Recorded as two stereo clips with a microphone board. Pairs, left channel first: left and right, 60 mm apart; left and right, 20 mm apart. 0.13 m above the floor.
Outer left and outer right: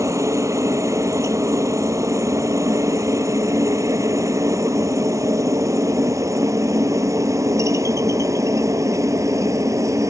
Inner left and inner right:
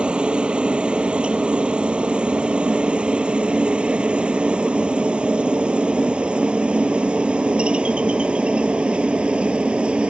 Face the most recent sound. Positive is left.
turn(degrees=-60)  # may be behind; listen again after turning